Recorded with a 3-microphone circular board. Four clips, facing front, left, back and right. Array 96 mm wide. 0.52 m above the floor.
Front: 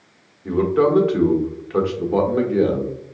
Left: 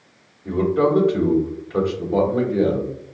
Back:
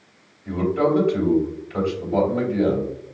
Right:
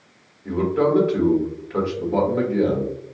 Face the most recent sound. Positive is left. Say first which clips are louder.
# left 1 dB, front 3 dB
turn(degrees=-5)